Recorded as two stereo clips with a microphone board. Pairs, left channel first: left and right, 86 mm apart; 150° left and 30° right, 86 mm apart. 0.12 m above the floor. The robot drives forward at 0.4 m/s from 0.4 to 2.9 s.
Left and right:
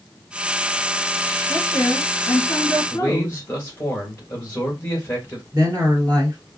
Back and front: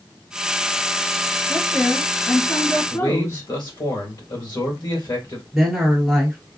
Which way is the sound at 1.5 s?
80° left.